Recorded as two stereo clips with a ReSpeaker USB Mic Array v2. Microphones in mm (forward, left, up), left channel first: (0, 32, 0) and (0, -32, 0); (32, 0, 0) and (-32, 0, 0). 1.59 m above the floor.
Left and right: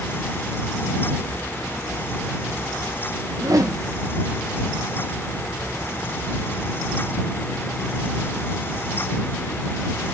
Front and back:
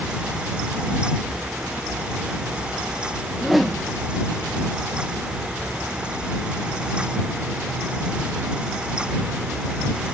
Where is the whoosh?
90° right.